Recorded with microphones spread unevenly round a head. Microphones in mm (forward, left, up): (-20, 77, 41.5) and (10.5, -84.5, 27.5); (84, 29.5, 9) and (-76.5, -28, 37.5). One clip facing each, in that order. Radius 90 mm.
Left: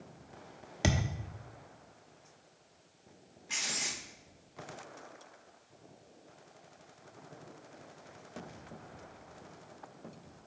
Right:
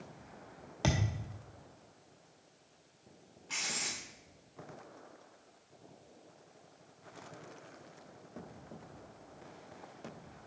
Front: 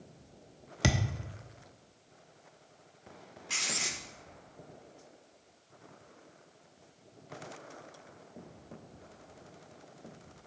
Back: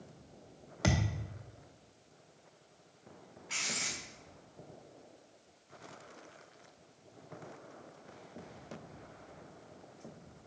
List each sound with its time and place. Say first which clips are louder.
0.8 s a thud: left 1 dB, front 1 dB; 55° left, 0.7 m
3.5 s writing: left 1 dB, front 2 dB; 35° left, 1.0 m